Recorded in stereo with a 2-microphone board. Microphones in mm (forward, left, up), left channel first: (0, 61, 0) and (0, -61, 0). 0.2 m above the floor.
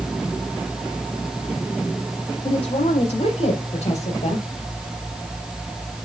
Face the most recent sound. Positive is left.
turn(degrees=65)  # may be behind; listen again after turning